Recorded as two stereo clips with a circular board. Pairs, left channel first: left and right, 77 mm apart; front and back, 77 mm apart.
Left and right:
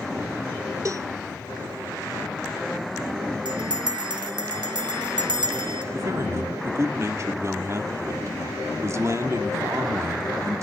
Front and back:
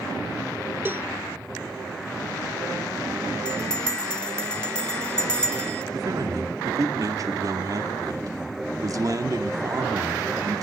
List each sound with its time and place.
0.8 s a cowbell: 125° right, 0.9 m
3.5 s a bell: 75° right, 1.5 m
5.9 s a man speaking: 140° right, 2 m